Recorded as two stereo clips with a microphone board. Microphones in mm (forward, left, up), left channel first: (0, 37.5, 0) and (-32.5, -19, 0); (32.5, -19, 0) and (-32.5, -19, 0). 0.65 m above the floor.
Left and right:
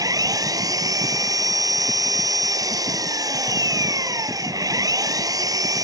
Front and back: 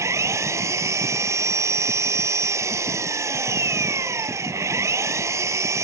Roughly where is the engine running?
Behind right.